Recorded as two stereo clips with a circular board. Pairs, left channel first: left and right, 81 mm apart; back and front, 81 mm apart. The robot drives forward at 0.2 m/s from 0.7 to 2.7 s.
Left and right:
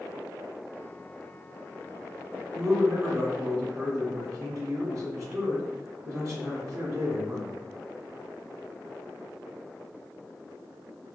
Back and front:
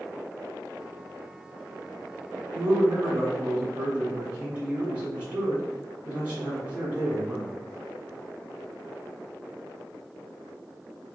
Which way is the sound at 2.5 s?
65° right.